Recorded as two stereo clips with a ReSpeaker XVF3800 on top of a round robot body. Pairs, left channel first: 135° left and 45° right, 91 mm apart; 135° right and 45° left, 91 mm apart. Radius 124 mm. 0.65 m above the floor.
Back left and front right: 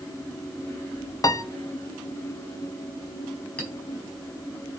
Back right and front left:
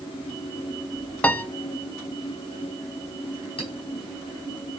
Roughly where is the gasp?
I don't hear a gasp.